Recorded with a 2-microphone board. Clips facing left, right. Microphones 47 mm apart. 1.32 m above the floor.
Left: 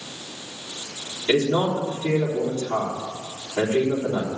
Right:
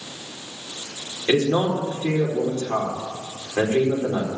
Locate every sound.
1.3 s a man speaking: 40° right (ahead or behind), 4 m